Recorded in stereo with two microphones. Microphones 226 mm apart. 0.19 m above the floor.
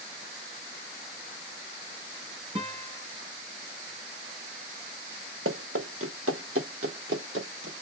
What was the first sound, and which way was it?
A guitar, 25° right (ahead or behind).